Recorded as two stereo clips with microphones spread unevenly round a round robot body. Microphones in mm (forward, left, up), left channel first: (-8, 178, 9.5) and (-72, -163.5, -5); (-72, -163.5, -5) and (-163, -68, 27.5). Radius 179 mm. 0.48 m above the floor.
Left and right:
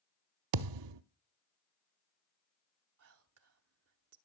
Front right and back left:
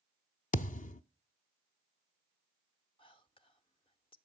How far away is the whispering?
About 1.1 m.